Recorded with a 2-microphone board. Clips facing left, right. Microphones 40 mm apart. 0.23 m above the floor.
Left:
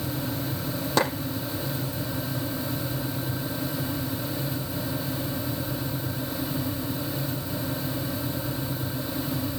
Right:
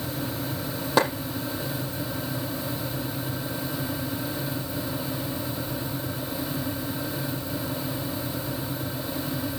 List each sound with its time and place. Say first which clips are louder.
1.0 s a clap: right 2 dB; 10° right (ahead or behind), 7.5 m